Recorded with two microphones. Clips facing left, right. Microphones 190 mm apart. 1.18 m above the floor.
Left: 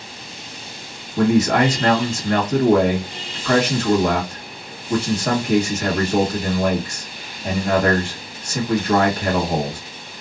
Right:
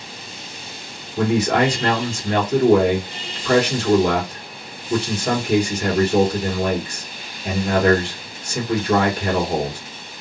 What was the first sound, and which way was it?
A man speaking, 60° left (ahead or behind).